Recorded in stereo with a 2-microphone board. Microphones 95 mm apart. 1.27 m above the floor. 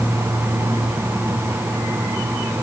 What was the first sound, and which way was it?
Only background noise.